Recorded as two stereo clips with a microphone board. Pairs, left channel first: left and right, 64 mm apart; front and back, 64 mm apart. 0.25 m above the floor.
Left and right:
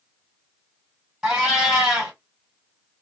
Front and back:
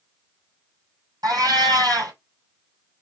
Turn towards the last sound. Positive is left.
turn(degrees=-170)